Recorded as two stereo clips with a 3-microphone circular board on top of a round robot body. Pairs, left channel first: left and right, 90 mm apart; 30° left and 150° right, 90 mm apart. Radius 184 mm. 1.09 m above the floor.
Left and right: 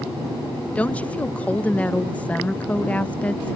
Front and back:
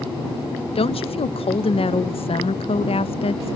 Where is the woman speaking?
15° left.